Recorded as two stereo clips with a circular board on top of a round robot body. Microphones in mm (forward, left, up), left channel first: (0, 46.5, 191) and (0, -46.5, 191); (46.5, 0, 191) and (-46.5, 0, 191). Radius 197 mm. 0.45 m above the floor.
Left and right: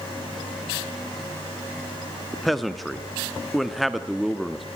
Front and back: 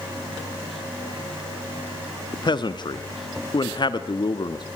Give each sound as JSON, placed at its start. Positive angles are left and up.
{"t": 2.3, "sound": "a man speaking", "azimuth_deg": 0, "distance_m": 1.1}